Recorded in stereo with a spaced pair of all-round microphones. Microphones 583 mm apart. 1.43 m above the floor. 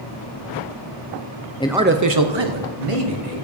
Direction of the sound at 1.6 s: 10° left (ahead or behind).